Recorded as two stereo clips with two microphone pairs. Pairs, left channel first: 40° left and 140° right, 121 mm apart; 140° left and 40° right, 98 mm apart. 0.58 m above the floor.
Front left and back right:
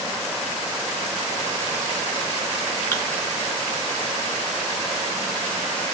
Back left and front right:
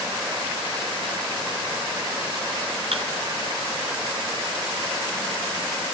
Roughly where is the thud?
Ahead right.